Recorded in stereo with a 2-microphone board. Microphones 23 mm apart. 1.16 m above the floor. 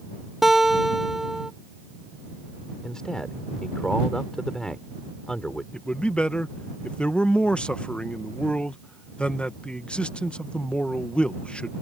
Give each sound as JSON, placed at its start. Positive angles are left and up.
{"t": 0.4, "sound": "a guitar", "side_deg": -10}
{"t": 2.8, "sound": "a man speaking", "side_deg": 35}
{"t": 5.7, "sound": "a man speaking", "side_deg": 55}